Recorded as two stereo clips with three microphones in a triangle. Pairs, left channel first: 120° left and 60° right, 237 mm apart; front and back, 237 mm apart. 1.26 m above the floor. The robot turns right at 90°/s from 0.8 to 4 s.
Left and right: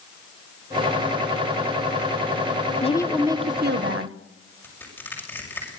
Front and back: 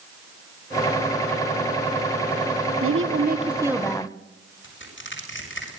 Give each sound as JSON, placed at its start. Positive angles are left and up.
{"t": 2.8, "sound": "a woman speaking", "azimuth_deg": 180, "distance_m": 1.1}
{"t": 4.6, "sound": "crushing", "azimuth_deg": 40, "distance_m": 6.5}